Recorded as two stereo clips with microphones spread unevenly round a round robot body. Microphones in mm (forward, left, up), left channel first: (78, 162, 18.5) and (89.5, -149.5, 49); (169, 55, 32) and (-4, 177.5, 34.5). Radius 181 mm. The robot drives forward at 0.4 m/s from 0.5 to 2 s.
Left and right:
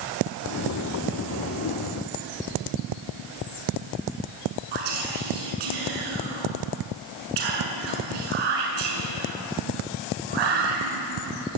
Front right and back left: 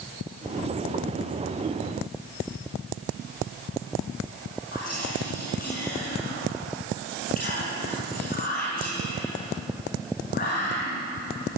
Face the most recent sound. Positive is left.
turn(degrees=-105)